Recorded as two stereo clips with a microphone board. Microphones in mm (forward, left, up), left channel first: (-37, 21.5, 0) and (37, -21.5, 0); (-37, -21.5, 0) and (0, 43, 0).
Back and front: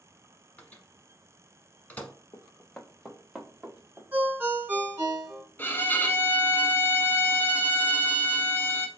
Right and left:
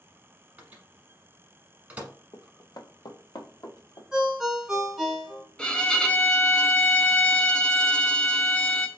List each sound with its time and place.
0.6 s a microwave: 95° left, 1.0 m
2.3 s running footsteps: 160° right, 0.7 m; by 4.0 s 105° right, 1.4 m
4.1 s a ringtone: 20° right, 0.8 m
5.6 s a violin: straight behind, 0.5 m